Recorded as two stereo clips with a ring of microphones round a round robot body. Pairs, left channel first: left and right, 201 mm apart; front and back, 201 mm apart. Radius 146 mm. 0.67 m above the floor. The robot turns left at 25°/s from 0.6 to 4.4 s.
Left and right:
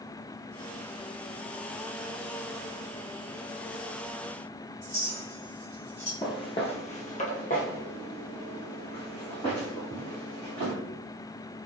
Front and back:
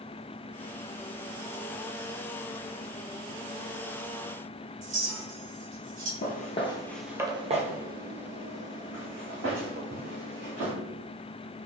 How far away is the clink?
About 1.5 m.